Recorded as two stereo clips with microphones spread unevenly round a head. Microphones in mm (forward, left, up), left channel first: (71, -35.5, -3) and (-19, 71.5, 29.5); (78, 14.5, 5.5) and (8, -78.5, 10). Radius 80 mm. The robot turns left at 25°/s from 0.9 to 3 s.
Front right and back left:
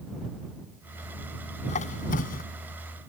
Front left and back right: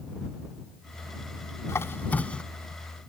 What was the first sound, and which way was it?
A squeak, 10° right.